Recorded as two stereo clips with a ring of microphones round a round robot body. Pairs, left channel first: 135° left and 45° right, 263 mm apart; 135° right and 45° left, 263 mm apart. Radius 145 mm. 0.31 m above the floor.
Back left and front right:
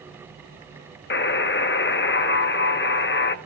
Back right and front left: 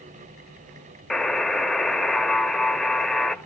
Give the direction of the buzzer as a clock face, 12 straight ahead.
7 o'clock.